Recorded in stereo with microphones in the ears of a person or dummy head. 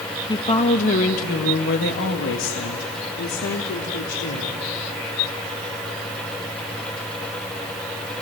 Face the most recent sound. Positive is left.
turn(degrees=80)